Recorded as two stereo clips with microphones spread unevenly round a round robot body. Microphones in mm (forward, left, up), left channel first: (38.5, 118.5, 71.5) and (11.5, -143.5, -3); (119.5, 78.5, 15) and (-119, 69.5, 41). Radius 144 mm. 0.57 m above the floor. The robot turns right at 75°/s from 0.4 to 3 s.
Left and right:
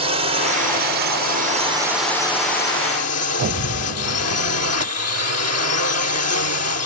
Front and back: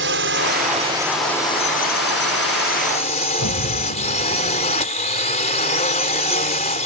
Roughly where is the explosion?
Ahead right.